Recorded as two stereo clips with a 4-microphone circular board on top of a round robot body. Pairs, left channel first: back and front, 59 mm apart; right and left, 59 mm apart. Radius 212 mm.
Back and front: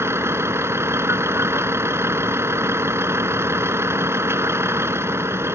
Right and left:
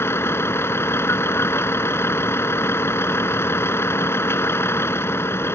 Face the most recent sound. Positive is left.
turn(degrees=-45)